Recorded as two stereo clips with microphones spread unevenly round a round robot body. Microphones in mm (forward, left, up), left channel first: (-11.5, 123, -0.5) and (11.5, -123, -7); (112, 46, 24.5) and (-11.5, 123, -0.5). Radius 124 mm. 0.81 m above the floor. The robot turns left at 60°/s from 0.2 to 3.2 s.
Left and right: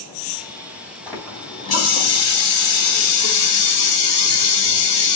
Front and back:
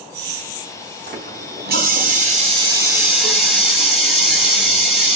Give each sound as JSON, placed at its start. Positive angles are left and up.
{"t": 1.1, "sound": "a running tap", "azimuth_deg": -170, "distance_m": 3.5}